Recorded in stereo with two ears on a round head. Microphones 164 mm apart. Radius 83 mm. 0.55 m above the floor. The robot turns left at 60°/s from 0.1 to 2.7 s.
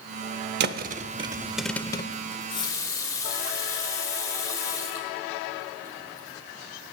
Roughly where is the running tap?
Left.